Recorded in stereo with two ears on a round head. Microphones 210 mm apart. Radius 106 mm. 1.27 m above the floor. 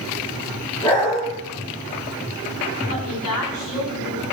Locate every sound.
0.8 s a dog barking: 20° left (ahead or behind), 4.5 m
2.9 s a woman speaking: 70° left (ahead or behind), 4 m